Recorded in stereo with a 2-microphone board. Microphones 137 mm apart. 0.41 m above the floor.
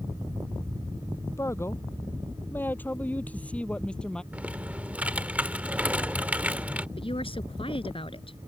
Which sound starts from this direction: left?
A woman speaking, at 7.0 s.